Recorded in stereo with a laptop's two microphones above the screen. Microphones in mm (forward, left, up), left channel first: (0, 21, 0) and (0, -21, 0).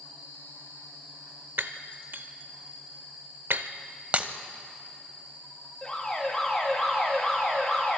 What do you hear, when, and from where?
1.6 s breaking glass: 65° right (ahead or behind), 0.9 m
4.1 s breaking glass: 40° right (ahead or behind), 1.0 m
5.8 s an alarm: 25° left (ahead or behind), 6.5 m